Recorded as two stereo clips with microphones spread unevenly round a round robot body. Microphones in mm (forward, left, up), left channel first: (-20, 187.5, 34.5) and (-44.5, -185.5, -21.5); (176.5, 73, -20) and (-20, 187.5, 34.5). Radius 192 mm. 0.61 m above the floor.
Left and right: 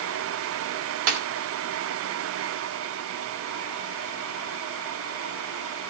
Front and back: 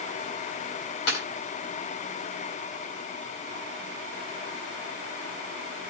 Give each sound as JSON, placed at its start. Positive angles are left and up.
{"t": 1.1, "sound": "a snare drum", "azimuth_deg": -80, "distance_m": 4.0}